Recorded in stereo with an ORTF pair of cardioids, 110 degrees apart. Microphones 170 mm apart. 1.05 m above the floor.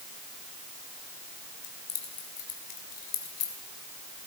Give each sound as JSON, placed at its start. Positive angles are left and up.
{"t": 1.6, "sound": "keys jangling", "azimuth_deg": 60, "distance_m": 2.5}